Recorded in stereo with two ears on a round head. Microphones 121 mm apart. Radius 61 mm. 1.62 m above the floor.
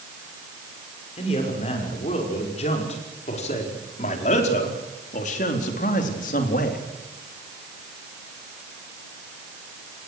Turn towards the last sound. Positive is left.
turn(degrees=65)  # may be behind; listen again after turning